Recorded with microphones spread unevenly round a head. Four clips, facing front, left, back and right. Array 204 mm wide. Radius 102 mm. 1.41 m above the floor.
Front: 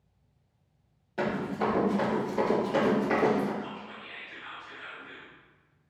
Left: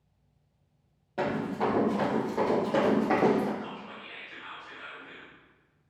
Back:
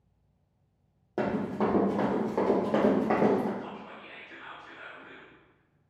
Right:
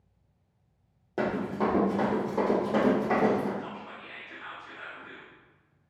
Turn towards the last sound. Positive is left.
turn(degrees=-130)